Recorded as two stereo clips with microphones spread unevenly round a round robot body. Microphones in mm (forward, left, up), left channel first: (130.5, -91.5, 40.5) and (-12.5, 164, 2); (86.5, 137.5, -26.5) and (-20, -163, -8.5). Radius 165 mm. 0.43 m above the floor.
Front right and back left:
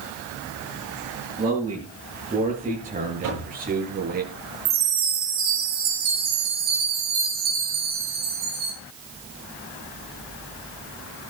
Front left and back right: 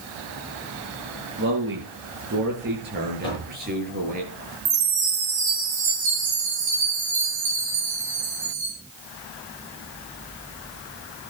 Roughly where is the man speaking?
Behind.